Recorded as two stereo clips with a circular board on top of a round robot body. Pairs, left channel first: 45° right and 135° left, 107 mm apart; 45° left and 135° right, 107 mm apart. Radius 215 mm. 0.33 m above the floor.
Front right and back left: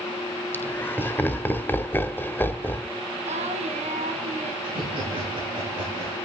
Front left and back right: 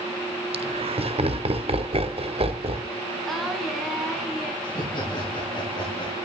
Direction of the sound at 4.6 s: 90° left.